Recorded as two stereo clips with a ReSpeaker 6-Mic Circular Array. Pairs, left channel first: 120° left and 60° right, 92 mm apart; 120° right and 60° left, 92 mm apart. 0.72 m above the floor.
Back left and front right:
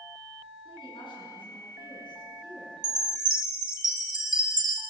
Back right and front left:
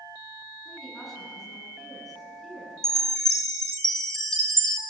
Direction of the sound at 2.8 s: 40° right.